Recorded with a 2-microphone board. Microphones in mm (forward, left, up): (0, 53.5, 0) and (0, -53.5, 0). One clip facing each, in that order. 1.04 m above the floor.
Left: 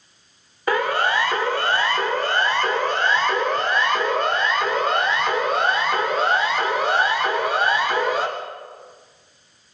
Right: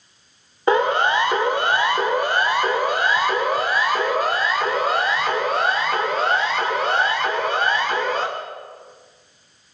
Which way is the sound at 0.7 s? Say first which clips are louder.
Right 3 dB; 25° right (ahead or behind).